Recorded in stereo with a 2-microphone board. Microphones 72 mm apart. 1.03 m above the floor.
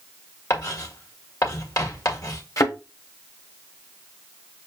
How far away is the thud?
About 1.3 m.